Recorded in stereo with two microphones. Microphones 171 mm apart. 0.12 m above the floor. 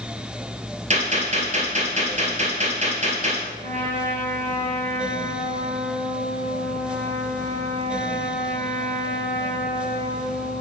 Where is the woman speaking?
I don't hear a woman speaking.